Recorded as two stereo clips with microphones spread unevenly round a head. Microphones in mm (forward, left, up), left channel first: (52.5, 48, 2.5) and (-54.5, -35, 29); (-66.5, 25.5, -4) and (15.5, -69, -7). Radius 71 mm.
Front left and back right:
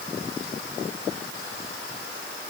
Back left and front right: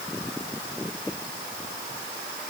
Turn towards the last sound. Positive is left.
No sound to turn to.